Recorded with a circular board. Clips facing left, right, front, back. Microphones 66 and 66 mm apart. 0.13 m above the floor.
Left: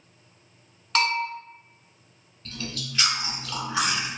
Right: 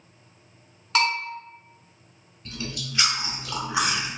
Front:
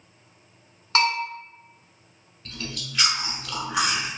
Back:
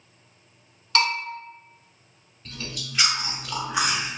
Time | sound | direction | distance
0.9 | a bell | 5° right | 1.1 m
2.5 | chewing | 100° right | 0.7 m